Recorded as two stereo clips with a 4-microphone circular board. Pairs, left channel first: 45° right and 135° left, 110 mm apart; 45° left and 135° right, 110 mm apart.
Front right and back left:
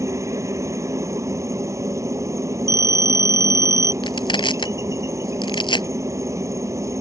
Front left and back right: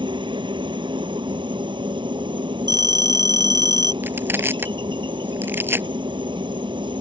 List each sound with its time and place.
0.0 s a helicopter: 165° right
2.7 s a phone ringing: 90° right
4.0 s crushing: 70° right